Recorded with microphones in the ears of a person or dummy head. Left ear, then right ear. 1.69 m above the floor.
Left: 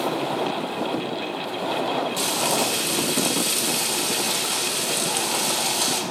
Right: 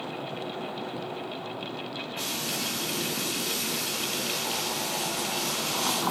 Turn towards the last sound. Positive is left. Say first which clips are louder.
# left 5 dB
turn(degrees=45)  # may be behind; listen again after turning